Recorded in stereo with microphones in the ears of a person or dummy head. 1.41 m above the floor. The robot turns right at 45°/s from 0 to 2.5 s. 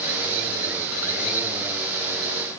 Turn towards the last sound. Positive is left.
No sound to turn to.